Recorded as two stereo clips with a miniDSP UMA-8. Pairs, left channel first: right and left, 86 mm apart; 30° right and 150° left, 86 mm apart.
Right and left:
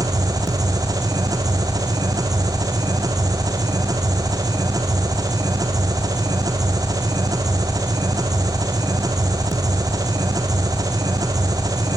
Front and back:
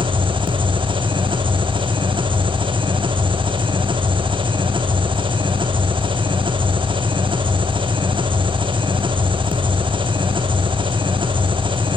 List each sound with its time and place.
0.0 s an engine running: 135° left, 2.5 m